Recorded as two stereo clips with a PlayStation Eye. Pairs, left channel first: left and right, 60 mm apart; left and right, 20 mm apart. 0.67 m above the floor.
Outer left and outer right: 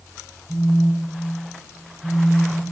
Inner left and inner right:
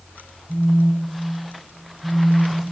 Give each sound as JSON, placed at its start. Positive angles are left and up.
{"t": 0.5, "sound": "a phone buzzing", "side_deg": 25, "distance_m": 1.3}